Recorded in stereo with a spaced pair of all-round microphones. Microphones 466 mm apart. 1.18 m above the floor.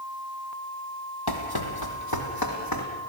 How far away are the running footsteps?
About 2.5 m.